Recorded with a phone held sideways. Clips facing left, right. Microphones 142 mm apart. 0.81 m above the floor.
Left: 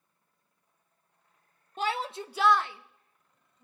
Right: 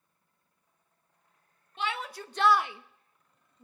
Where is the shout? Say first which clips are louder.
Left 3 dB; 45° left (ahead or behind), 0.8 m; by 3.6 s 55° right (ahead or behind), 1.1 m.